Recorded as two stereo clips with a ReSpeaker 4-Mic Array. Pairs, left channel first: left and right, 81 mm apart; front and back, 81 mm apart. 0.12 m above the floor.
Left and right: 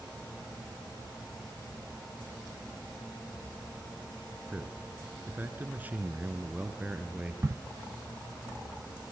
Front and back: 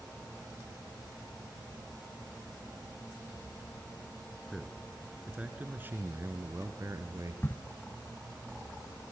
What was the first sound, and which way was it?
A man speaking, 80° right.